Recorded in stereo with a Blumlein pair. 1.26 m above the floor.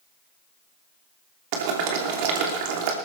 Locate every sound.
1.5 s boiling: 45° right, 3 m